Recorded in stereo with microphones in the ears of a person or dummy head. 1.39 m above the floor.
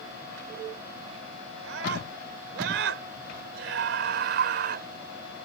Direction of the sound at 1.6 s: 80° right.